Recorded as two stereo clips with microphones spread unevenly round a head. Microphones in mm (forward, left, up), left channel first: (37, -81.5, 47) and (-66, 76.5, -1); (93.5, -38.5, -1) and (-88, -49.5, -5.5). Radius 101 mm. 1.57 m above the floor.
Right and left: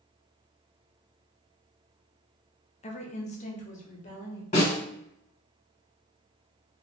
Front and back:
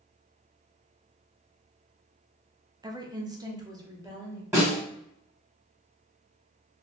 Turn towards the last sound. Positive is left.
turn(degrees=-100)